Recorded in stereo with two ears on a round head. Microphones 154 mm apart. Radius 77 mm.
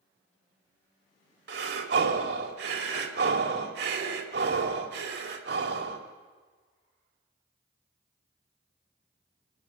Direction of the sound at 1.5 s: 70° right (ahead or behind).